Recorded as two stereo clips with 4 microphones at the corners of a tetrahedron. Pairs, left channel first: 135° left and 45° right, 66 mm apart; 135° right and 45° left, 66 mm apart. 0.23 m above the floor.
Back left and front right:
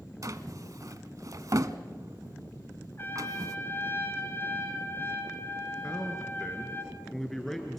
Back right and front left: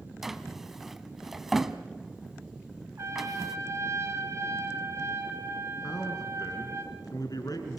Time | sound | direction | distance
0.2 | a drawer | 40° right | 0.9 m
3.0 | a trumpet | 85° left | 3 m
5.8 | a man speaking | 140° right | 2.5 m